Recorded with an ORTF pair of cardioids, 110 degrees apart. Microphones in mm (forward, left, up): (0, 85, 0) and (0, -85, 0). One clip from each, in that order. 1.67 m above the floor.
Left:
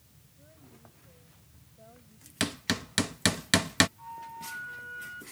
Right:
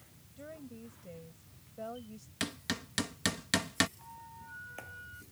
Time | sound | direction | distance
0.4 | a woman speaking | 70° right | ?
2.4 | hammering | 40° left | ?
4.0 | a flute | 45° left | ?